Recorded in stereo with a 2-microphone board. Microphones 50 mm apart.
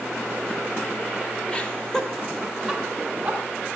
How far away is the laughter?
About 0.9 m.